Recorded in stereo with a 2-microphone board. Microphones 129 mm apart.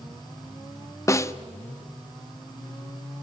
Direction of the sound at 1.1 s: 20° left (ahead or behind).